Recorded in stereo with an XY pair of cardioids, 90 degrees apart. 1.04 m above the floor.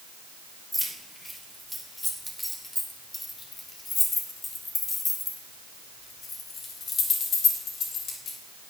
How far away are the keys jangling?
About 3 m.